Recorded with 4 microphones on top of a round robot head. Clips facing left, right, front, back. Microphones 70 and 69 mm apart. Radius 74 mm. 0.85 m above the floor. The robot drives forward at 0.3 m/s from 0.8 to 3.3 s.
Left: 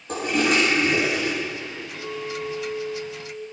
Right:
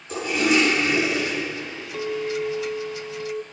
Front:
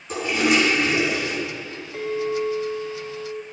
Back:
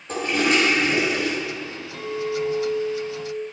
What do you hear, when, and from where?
0.1 s a toilet flushing: 130° left, 4.5 m; by 1.3 s 135° left, 4.5 m
1.9 s a clink: 65° right, 1.3 m; by 3.4 s 85° right, 1.2 m